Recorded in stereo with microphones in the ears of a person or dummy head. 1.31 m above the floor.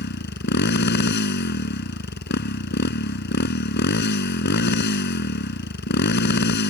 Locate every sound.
0.0 s a motorcycle: 55° left (ahead or behind)